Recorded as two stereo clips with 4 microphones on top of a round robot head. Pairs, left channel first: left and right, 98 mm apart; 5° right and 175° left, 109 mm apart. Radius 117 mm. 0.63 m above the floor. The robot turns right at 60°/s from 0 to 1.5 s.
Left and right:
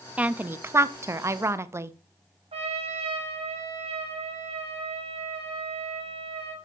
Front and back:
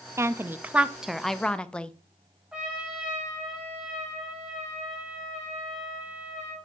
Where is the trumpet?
100° right, 1.7 m.